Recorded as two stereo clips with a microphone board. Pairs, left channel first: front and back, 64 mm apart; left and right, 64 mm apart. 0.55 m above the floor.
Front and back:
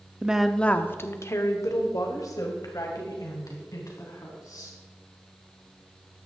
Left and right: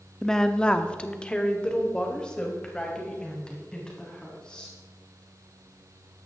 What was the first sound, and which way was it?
A woman speaking, 160° left.